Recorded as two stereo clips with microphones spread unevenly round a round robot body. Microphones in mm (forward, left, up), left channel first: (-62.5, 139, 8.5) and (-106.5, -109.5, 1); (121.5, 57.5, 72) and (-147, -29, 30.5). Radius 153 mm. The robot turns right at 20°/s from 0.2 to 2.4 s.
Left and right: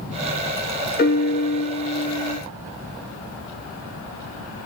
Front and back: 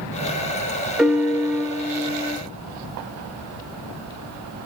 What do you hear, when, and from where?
1.0 s a piano: 120° left, 1.0 m; by 2.4 s 145° left, 1.0 m